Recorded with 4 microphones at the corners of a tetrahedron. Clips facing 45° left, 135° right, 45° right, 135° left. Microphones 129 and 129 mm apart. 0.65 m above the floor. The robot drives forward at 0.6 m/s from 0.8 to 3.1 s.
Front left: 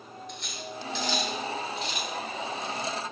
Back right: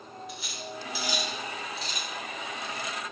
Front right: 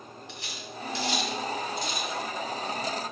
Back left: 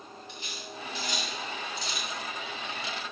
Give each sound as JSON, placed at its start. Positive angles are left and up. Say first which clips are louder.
{"t": 0.3, "sound": "cutlery clinking", "louder": "front left 1 dB, front right 1 dB", "azimuth_deg": -50, "distance_m": 1.2}